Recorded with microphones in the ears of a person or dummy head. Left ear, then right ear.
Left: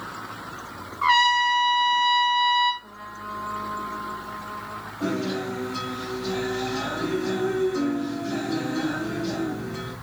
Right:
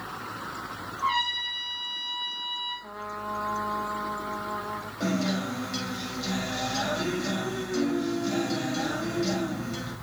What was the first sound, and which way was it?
A trumpet, 55° left (ahead or behind).